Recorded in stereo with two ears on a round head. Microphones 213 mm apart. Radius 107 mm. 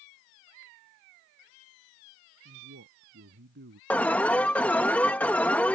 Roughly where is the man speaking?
Right.